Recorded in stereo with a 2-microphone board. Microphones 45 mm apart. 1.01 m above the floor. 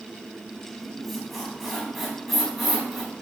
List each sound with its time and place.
0.8 s a squeak: centre (ahead or behind), 4 m